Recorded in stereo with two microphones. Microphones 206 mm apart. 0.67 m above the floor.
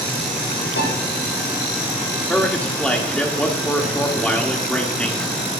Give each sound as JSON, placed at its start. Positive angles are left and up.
{"t": 0.8, "sound": "a piano", "side_deg": 75, "distance_m": 5.0}
{"t": 2.3, "sound": "a man speaking", "side_deg": 5, "distance_m": 1.6}